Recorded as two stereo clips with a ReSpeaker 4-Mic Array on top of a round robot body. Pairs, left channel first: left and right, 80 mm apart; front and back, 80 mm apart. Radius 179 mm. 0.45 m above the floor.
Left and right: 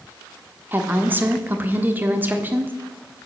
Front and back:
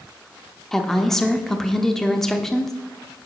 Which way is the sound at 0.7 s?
80° right.